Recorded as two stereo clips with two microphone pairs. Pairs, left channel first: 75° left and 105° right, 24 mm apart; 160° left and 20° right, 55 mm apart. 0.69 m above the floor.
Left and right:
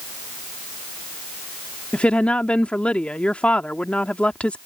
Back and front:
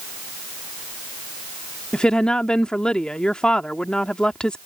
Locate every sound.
1.9 s a woman speaking: 90° left